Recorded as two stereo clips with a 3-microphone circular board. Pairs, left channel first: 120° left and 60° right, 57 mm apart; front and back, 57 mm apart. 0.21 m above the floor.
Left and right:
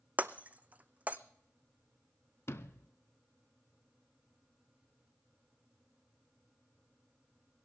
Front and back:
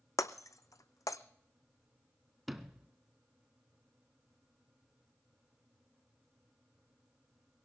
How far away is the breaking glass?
About 0.6 m.